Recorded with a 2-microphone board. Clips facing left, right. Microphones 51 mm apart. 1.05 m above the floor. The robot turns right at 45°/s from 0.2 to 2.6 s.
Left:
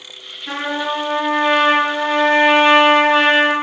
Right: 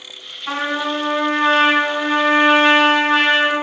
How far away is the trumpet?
About 3 m.